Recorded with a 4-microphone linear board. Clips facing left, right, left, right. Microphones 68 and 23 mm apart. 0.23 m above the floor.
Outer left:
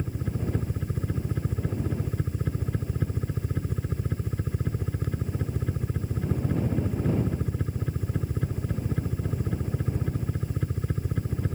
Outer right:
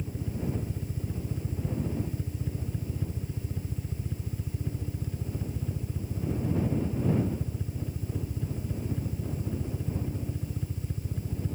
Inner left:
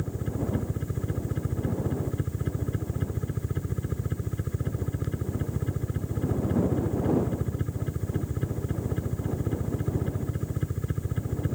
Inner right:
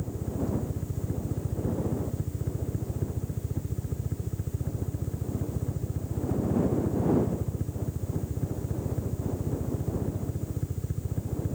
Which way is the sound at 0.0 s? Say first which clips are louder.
Outer left 2 dB, inner left 1 dB; 65° left (ahead or behind).